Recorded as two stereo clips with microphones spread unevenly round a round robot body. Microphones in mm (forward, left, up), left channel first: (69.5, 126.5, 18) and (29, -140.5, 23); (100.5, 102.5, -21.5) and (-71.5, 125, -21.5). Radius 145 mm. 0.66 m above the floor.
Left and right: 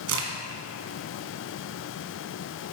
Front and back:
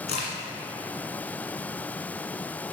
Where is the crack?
60° right, 1.5 m.